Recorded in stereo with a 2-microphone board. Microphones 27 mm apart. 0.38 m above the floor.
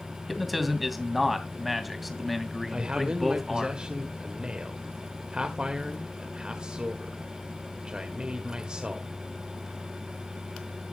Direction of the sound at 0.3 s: 5° right (ahead or behind).